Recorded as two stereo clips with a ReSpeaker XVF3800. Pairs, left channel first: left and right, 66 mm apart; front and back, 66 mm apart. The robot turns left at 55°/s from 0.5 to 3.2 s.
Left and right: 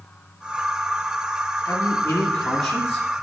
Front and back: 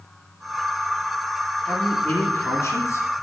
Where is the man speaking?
60° left, 2.5 m; by 3.1 s 20° right, 2.5 m.